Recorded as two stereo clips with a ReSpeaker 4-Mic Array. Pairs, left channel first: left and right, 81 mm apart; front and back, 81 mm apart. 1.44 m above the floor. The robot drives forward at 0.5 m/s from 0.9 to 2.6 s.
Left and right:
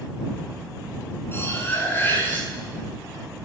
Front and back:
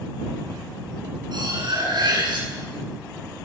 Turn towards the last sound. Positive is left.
turn(degrees=150)